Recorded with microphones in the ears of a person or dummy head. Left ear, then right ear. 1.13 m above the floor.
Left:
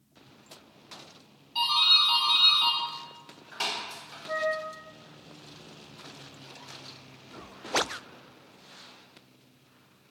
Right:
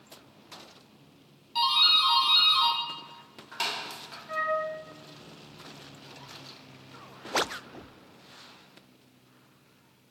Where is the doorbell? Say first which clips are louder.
Even; 15° right (ahead or behind), 0.8 m.